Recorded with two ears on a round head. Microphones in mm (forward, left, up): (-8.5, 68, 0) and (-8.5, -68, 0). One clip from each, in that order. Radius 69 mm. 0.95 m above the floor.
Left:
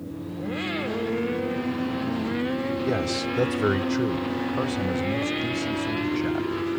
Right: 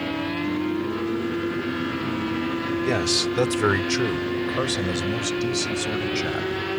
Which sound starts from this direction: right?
A man speaking, at 2.9 s.